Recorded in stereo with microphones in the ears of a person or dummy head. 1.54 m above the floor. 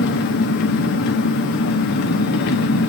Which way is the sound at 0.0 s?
60° left (ahead or behind).